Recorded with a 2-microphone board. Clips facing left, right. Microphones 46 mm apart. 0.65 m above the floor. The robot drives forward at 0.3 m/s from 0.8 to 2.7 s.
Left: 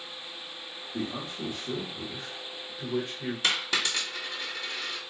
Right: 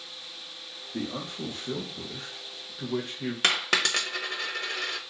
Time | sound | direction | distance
0.9 | a man speaking | 25° right (ahead or behind) | 1.1 m
3.4 | a dropped coin | 65° right (ahead or behind) | 0.6 m